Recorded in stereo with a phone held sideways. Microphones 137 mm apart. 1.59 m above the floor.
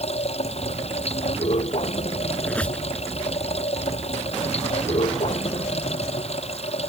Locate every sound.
0.0 s running water: 50° left (ahead or behind)
2.4 s a squeak: 10° left (ahead or behind)